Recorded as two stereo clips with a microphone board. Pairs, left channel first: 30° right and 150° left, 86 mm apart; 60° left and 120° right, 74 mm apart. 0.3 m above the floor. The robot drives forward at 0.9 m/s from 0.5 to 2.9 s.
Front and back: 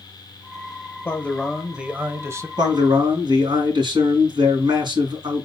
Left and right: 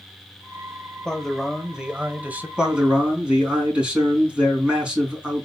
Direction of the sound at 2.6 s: 165° left.